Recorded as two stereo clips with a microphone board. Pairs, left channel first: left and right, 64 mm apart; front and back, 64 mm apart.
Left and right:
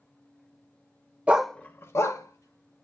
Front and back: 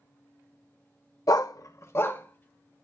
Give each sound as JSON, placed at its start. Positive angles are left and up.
{"t": 1.3, "sound": "a dog barking", "azimuth_deg": -20, "distance_m": 0.6}